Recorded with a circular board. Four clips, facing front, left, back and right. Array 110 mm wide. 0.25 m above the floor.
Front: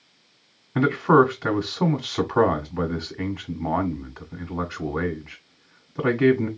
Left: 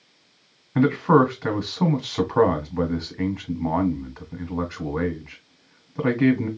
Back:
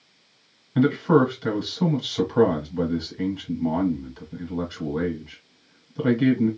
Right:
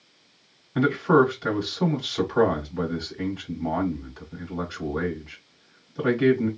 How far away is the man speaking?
About 1.4 m.